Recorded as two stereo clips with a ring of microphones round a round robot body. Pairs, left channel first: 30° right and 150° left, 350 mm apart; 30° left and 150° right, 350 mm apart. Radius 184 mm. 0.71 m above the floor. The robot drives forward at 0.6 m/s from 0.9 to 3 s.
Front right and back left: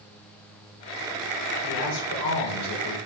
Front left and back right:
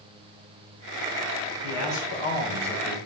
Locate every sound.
1.6 s a man speaking: 35° right, 3 m; by 3.0 s 45° right, 2.5 m